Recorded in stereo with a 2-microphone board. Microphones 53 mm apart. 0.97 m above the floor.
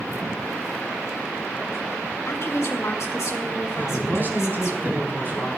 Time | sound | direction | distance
2.3 | a woman speaking | 50° left (ahead or behind) | 2.5 m
3.8 | a man speaking | 40° right (ahead or behind) | 8 m